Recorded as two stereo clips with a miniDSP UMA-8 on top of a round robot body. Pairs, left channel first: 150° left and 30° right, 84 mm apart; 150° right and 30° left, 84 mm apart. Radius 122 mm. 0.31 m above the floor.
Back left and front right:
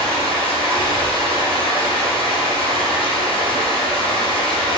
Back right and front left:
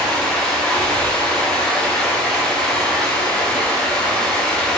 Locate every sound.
0.0 s running water: 125° left, 0.8 m